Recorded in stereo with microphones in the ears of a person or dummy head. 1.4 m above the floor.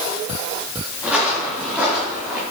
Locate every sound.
1.0 s footsteps: 5° right (ahead or behind), 4 m